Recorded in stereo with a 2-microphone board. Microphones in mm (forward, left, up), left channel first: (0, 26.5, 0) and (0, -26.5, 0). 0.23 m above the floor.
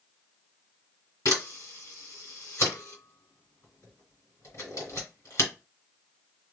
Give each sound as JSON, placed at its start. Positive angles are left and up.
{"t": 1.2, "sound": "a camera shutter", "side_deg": 60, "distance_m": 2.5}